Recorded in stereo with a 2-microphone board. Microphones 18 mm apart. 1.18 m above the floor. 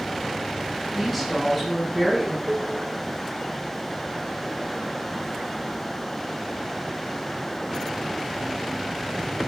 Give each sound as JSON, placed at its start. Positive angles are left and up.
{"t": 0.9, "sound": "a woman speaking", "side_deg": -5, "distance_m": 8.5}
{"t": 2.5, "sound": "dishes clattering", "side_deg": -40, "distance_m": 3.0}